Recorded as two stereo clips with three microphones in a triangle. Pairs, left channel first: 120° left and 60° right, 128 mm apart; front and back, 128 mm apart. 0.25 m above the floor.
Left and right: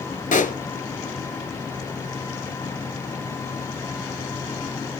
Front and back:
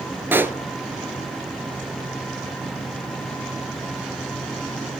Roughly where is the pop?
Left.